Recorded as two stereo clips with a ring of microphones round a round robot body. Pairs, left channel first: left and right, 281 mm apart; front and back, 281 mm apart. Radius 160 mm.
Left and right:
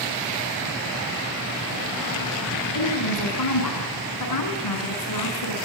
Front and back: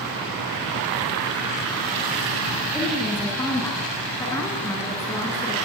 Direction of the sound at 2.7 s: 80° left.